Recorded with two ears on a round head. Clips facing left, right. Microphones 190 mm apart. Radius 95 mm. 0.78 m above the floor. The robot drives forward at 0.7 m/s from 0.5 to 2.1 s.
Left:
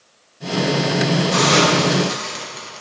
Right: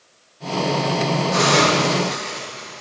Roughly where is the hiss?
Left.